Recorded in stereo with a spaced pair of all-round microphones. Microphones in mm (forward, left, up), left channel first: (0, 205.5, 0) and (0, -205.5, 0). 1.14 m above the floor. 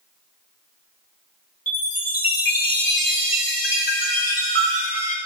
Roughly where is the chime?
Left.